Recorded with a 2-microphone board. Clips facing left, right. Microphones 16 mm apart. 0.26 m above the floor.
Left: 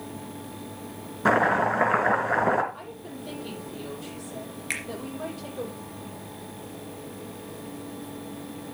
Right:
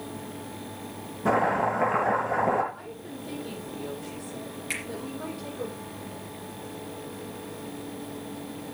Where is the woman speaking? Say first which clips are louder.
Even; 55° left (ahead or behind), 9 m.